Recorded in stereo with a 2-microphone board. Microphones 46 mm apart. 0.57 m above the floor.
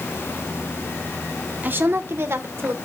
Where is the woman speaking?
40° right (ahead or behind), 0.8 m; by 2.8 s 60° right (ahead or behind), 2.0 m.